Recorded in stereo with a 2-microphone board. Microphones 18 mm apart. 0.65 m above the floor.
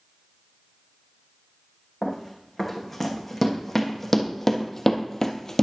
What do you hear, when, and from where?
2.0 s running footsteps: 5° left (ahead or behind), 2.5 m; by 5.6 s 25° left (ahead or behind), 0.7 m